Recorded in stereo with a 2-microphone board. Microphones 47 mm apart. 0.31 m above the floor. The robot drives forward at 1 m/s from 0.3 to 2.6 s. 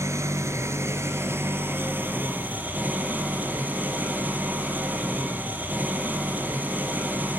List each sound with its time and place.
0.0 s an engine running: 85° right, 2.0 m; by 7.4 s 40° right (ahead or behind), 3 m